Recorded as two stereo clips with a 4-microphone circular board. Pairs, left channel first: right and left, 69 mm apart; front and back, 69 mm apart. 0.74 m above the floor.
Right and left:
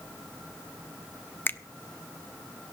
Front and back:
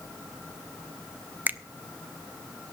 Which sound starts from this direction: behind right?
A finger snap, at 1.5 s.